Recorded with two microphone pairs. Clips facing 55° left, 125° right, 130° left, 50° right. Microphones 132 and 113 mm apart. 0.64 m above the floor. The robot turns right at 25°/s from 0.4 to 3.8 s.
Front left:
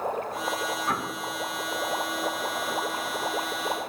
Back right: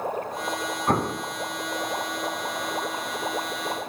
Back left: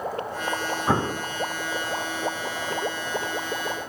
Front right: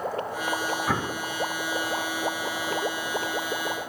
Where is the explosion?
170° right, 0.6 m; by 1.2 s 160° right, 0.6 m.